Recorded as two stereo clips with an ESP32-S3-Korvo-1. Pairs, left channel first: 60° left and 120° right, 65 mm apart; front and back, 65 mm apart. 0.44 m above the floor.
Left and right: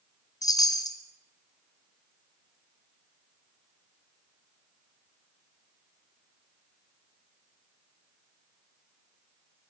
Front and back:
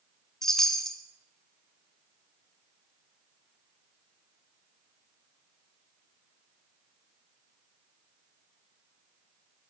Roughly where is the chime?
Left.